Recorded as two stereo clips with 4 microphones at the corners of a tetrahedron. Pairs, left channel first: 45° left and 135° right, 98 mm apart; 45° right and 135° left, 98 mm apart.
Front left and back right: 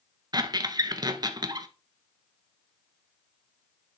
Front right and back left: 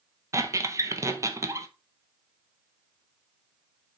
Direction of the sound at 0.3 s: 175° right.